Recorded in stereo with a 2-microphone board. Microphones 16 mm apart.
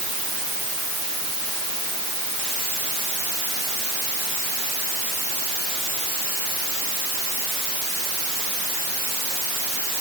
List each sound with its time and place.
Only background noise.